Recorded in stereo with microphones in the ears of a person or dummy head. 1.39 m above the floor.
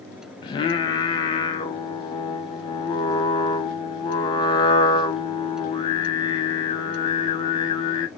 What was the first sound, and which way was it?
Singing, 30° left (ahead or behind).